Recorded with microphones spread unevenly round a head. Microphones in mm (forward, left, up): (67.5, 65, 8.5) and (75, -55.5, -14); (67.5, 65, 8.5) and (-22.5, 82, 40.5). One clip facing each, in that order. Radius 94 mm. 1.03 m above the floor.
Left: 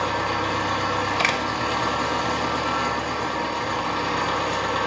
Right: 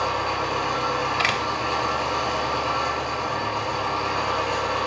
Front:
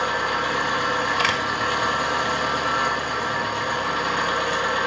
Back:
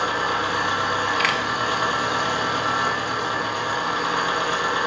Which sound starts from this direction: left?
An engine running, at 0.0 s.